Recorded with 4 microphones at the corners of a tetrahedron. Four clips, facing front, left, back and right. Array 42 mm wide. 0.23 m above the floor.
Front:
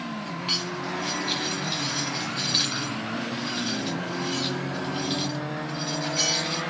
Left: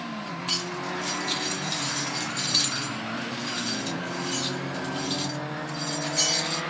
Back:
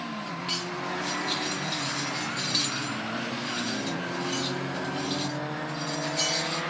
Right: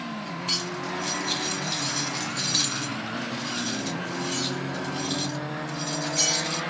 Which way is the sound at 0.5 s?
Straight ahead.